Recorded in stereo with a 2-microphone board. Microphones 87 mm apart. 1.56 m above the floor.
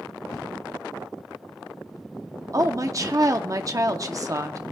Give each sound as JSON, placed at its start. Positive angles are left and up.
{"t": 0.3, "sound": "writing", "side_deg": 50, "distance_m": 3.5}
{"t": 2.5, "sound": "a woman speaking", "side_deg": -40, "distance_m": 0.8}